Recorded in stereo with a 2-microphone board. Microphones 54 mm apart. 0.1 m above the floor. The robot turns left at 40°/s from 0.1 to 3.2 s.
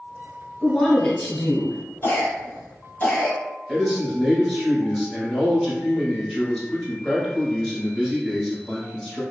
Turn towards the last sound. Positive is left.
turn(degrees=10)  # may be behind; listen again after turning